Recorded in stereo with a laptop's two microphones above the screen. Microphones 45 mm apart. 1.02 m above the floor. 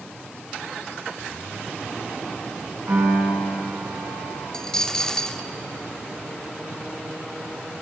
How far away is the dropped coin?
About 0.9 m.